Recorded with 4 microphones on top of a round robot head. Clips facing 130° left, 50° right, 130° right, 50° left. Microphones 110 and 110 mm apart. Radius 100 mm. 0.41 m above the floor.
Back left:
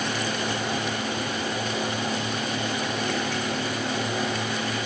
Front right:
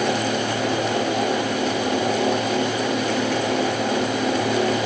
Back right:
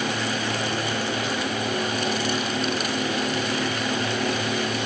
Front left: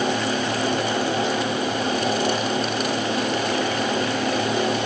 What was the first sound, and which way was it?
Only background noise.